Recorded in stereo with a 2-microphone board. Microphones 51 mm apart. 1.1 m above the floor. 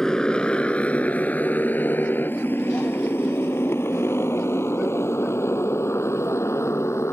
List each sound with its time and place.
0.0 s a motorcycle: 15° left (ahead or behind); by 7.1 s 65° left (ahead or behind)